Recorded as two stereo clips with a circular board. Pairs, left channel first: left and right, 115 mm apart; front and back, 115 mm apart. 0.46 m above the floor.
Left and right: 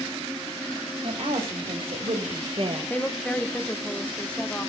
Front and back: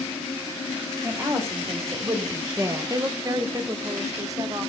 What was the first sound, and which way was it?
A woman speaking, 115° right.